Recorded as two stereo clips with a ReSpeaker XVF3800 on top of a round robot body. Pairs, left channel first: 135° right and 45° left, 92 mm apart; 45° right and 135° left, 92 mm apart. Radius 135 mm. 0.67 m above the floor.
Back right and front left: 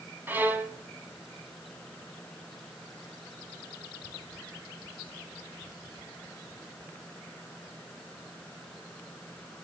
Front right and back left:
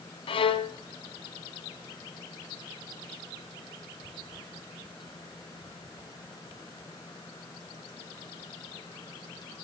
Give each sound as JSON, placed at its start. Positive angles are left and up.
{"t": 0.3, "sound": "a violin", "azimuth_deg": -25, "distance_m": 1.8}